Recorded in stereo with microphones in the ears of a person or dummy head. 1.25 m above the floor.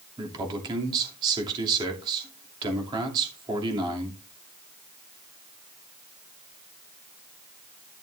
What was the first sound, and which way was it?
A man speaking, 25° right (ahead or behind).